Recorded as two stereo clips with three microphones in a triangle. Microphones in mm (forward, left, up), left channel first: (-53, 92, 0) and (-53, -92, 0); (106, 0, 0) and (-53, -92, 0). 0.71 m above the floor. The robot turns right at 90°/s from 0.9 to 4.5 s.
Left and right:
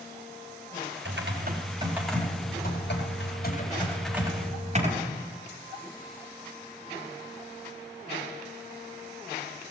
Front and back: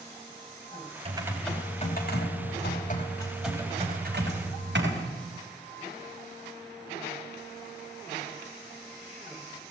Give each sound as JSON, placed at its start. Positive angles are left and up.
{"t": 1.1, "sound": "typing on a keyboard", "azimuth_deg": -90, "distance_m": 4.0}